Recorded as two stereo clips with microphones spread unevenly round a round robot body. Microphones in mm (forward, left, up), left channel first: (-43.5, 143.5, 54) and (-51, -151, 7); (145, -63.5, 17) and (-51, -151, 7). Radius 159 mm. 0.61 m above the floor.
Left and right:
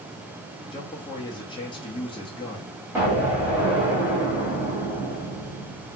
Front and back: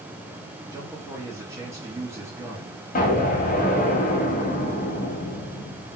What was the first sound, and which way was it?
A man speaking, 160° left.